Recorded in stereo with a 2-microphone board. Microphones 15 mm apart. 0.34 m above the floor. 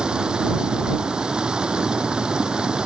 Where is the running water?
60° right (ahead or behind).